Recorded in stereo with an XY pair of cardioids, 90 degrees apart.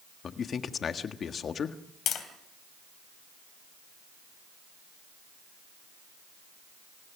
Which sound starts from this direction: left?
Tapping, at 2.1 s.